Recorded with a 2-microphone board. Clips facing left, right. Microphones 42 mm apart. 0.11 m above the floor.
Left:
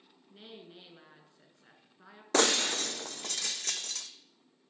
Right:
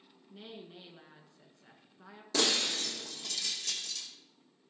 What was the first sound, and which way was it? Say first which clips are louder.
A woman speaking: right 2 dB; 5° left (ahead or behind).